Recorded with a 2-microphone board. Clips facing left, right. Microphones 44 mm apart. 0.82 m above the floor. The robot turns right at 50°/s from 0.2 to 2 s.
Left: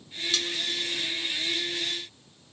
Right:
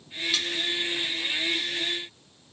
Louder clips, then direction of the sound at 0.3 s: Even; 10° right (ahead or behind).